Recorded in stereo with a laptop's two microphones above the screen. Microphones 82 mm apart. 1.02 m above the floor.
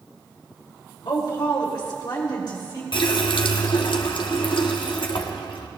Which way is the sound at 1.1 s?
80° left.